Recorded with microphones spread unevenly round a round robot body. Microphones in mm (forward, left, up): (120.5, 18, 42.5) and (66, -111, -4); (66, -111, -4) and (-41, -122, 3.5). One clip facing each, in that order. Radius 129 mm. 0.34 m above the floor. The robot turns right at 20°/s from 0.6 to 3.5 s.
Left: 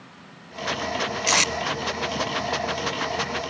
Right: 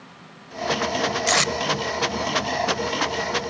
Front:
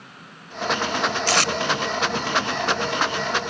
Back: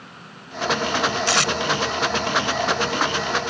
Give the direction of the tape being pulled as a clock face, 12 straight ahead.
1 o'clock.